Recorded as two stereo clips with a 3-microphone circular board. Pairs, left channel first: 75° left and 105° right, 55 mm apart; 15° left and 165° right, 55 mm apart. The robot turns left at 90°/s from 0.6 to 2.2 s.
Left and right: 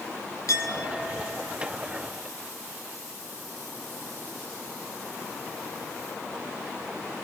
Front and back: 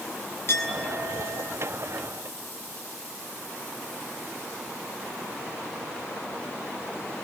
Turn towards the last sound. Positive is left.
turn(degrees=-90)